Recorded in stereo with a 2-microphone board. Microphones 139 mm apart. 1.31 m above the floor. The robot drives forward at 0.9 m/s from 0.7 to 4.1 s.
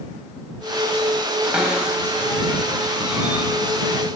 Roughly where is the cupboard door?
Centre.